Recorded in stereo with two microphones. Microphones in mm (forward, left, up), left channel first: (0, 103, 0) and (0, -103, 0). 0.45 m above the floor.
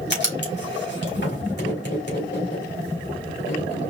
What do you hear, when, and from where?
0.1 s writing: 60° left (ahead or behind), 2.5 m